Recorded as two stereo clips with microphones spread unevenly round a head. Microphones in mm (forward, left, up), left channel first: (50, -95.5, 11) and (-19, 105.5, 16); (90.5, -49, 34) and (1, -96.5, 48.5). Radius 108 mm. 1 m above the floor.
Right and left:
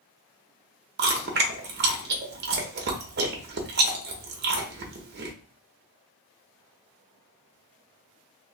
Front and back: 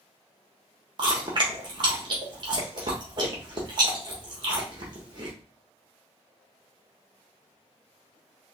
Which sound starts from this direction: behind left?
Chewing, at 1.0 s.